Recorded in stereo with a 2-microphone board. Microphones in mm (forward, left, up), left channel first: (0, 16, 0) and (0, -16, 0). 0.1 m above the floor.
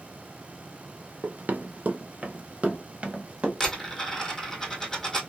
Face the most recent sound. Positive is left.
turn(degrees=15)  # may be behind; listen again after turning